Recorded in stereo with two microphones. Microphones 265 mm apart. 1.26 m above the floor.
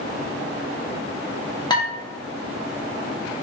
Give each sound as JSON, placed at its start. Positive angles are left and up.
{"t": 1.7, "sound": "dishes clattering", "side_deg": 15, "distance_m": 1.0}